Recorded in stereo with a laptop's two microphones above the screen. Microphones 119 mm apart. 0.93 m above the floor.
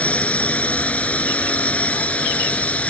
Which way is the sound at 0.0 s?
10° left (ahead or behind).